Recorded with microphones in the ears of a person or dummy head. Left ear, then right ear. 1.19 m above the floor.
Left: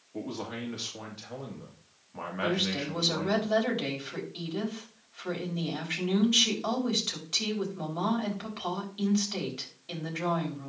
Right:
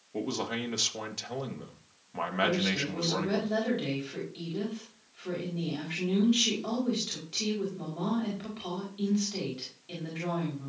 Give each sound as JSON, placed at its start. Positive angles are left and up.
{"t": 0.1, "sound": "a man speaking", "side_deg": -75, "distance_m": 1.8}
{"t": 2.4, "sound": "a woman speaking", "side_deg": 35, "distance_m": 4.5}